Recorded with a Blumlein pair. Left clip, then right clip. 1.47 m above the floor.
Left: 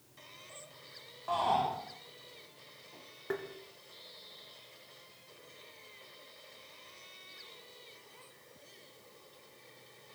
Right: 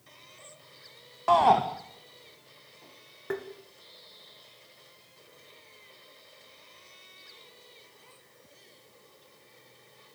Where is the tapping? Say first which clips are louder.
Right 3 dB; 10° right, 1.9 m.